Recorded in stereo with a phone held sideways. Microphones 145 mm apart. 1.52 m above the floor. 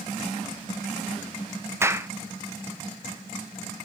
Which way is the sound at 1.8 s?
15° right (ahead or behind).